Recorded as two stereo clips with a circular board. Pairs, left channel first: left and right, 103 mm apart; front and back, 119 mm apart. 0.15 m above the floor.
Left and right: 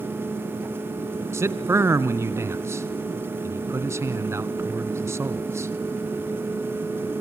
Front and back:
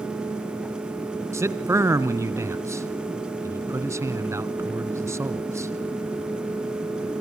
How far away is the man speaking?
About 1.3 m.